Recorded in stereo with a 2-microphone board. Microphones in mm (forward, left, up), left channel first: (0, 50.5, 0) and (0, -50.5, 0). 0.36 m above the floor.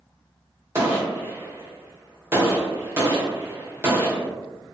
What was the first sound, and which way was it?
A gunshot, 25° right (ahead or behind).